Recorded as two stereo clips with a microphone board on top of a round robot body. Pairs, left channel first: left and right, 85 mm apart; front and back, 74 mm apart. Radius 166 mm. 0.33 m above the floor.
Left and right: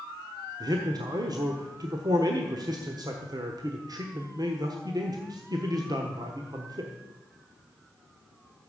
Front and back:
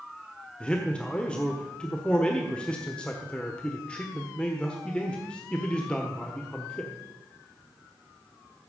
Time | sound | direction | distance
0.6 | a man speaking | 70° right | 1.5 m